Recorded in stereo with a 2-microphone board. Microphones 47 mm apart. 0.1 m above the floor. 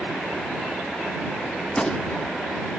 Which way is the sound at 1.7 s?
15° left (ahead or behind).